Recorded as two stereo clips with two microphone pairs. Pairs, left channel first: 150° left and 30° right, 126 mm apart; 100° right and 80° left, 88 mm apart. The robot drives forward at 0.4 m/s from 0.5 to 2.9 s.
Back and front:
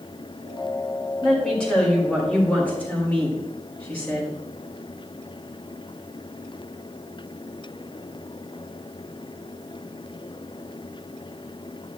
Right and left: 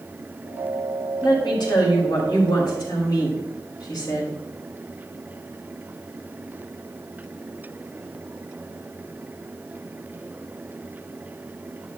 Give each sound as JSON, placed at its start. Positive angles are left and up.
{"t": 1.2, "sound": "a woman speaking", "azimuth_deg": -125, "distance_m": 4.5}